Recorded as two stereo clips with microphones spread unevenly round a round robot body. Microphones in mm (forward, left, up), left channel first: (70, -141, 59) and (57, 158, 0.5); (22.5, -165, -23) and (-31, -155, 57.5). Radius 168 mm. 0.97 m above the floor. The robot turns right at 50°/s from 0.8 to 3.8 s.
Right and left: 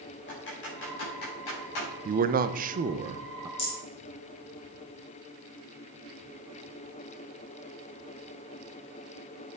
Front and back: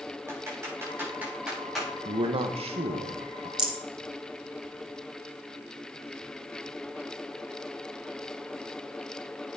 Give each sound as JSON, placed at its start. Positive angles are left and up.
{"t": 0.3, "sound": "typing on a keyboard", "azimuth_deg": -145, "distance_m": 5.0}
{"t": 2.0, "sound": "a man speaking", "azimuth_deg": 75, "distance_m": 0.6}
{"t": 3.6, "sound": "a rattle", "azimuth_deg": -155, "distance_m": 1.9}